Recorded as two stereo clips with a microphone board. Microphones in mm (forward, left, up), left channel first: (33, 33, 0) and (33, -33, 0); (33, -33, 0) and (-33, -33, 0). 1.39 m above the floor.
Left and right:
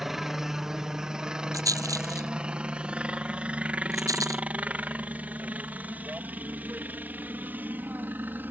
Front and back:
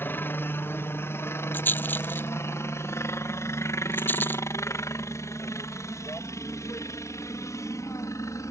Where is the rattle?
60° right.